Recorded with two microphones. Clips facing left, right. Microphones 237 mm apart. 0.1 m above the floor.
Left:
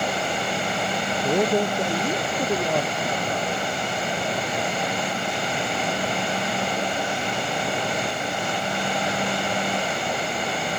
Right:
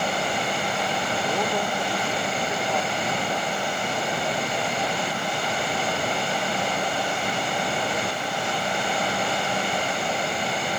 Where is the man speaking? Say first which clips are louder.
Left 9 dB; 35° left (ahead or behind); by 3.7 s 50° left (ahead or behind).